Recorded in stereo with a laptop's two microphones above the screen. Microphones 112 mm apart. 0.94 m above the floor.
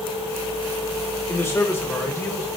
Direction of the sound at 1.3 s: 25° left (ahead or behind).